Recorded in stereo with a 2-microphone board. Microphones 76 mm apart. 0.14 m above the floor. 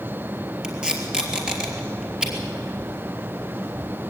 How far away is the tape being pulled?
About 3 m.